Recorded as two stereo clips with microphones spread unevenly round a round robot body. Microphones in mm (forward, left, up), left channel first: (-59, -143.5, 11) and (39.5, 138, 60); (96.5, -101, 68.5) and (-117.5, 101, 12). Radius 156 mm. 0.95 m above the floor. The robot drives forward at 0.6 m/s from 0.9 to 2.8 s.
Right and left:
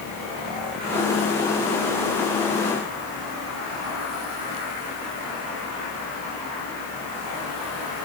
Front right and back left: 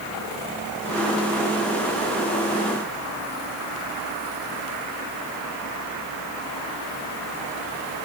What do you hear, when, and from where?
Only background noise.